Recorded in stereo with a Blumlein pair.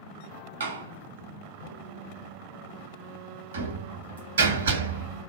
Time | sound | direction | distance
0.6 | a door slam | 70° right | 0.9 m